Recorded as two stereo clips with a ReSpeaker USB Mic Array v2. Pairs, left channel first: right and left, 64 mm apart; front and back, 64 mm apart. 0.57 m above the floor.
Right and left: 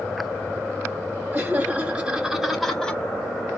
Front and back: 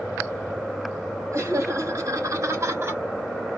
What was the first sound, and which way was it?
Laughter, 145° left.